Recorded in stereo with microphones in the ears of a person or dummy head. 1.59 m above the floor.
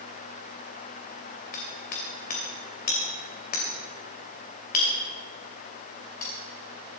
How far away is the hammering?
About 2.5 m.